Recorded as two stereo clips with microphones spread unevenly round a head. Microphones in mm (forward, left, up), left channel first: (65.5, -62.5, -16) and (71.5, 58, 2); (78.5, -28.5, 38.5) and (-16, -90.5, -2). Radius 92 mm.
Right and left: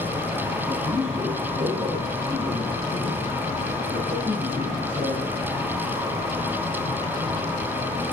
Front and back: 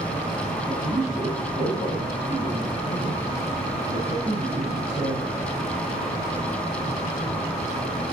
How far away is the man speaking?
About 7 m.